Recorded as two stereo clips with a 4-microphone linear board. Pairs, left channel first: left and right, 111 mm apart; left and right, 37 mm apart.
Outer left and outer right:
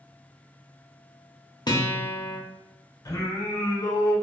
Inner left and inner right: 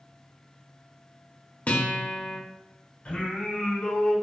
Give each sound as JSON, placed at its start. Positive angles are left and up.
{"t": 1.7, "sound": "a guitar", "side_deg": 40, "distance_m": 0.7}
{"t": 3.0, "sound": "singing", "side_deg": 40, "distance_m": 0.9}